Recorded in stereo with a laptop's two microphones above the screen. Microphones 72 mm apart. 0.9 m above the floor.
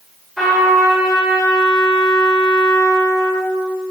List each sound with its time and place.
0.4 s a trumpet: centre (ahead or behind), 2.5 m